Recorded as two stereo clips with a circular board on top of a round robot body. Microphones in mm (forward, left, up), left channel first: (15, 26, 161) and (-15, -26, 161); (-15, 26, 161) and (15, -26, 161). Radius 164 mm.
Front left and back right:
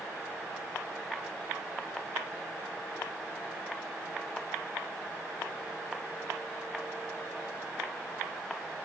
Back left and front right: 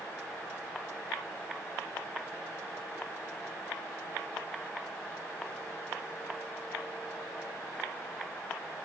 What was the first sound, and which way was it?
Only background noise.